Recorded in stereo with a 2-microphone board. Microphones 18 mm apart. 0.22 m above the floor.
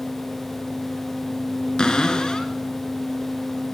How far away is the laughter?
I don't hear laughter.